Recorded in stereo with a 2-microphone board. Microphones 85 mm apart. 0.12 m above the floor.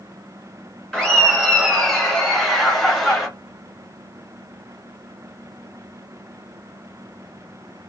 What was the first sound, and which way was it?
Laughter, 5° left (ahead or behind).